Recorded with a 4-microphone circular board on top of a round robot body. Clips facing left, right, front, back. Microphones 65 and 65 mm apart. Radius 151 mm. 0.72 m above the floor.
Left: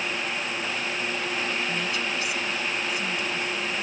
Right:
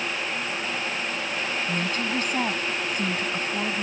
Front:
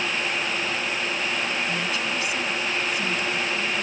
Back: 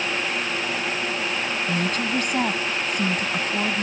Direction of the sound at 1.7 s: 140° right.